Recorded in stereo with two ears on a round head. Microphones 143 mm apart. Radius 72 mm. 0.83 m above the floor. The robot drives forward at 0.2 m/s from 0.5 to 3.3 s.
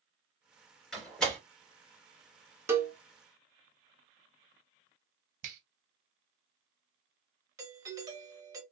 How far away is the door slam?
About 1.8 m.